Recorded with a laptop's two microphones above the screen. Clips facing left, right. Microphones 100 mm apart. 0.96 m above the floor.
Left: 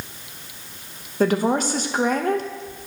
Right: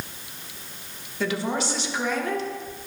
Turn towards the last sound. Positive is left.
turn(degrees=45)  # may be behind; listen again after turning